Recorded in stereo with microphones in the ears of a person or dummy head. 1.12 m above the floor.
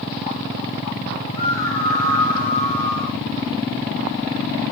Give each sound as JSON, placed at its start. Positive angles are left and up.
{"t": 1.3, "sound": "a scream", "side_deg": 35, "distance_m": 8.0}